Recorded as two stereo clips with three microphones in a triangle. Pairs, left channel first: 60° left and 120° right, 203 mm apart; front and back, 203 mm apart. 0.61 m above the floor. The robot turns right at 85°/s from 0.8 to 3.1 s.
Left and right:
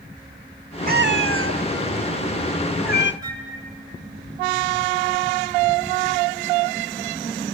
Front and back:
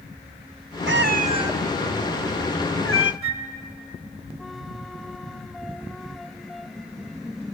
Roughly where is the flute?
Behind.